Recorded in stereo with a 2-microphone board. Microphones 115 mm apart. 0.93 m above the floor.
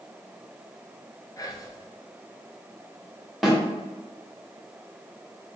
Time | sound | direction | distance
1.4 | whispering | 30° left (ahead or behind) | 0.6 m
3.4 | a snare drum | centre (ahead or behind) | 1.1 m